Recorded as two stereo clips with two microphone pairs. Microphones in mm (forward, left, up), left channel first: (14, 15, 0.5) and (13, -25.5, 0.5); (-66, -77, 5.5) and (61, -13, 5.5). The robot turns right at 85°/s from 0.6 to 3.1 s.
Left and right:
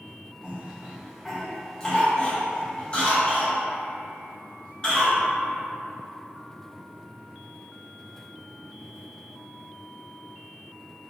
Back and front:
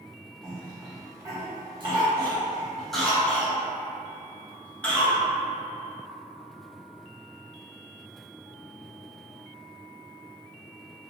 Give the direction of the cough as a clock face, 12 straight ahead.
3 o'clock.